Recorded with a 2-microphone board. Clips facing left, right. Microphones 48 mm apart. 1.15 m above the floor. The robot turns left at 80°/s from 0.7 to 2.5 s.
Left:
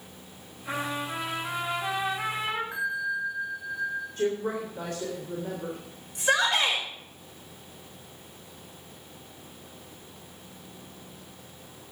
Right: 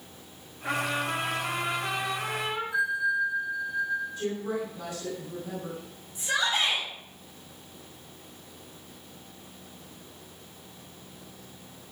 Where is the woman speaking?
50° left (ahead or behind), 3.5 m.